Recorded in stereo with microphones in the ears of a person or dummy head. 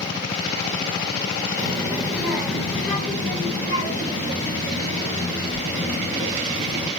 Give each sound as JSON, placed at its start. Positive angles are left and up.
{"t": 1.6, "sound": "a child speaking", "side_deg": -25, "distance_m": 0.8}